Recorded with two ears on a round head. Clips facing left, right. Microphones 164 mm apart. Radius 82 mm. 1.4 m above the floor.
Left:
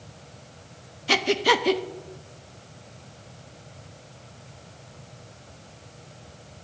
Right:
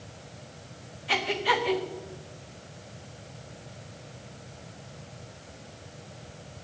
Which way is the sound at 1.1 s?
50° left (ahead or behind).